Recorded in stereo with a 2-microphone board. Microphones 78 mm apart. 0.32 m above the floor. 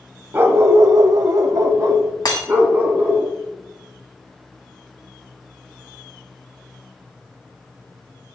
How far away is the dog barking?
About 0.8 m.